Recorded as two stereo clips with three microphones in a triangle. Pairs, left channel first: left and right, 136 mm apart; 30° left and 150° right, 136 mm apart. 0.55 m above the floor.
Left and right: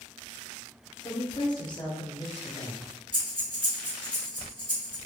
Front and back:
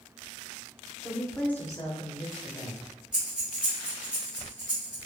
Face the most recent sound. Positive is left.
turn(degrees=-70)